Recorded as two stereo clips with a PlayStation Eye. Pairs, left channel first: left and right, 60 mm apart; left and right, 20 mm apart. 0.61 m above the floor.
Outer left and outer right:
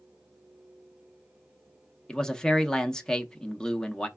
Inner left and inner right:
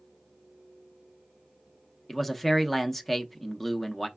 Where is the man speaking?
10° left (ahead or behind), 0.7 m.